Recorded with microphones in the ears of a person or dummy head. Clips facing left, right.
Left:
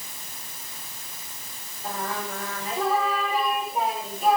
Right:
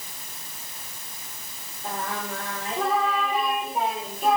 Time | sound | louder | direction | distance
1.8 | singing | even | centre (ahead or behind) | 5 m